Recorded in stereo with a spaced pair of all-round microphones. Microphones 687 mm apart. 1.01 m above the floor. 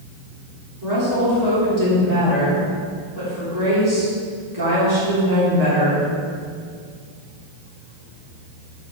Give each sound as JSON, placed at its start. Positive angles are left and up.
{"t": 0.8, "sound": "a woman speaking", "side_deg": -25, "distance_m": 3.5}